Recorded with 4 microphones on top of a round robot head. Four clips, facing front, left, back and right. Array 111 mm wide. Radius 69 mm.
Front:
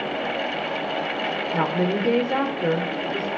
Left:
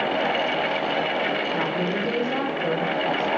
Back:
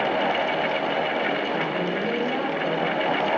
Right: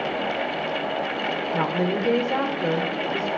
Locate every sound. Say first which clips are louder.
1.5 s a woman speaking: right 1 dB, front 3 dB; 25° right, 1.9 m